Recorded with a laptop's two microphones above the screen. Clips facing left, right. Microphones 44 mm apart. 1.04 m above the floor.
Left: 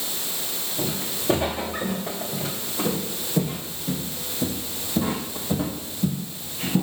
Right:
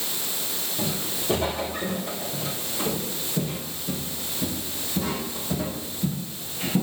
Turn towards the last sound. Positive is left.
turn(degrees=15)  # may be behind; listen again after turning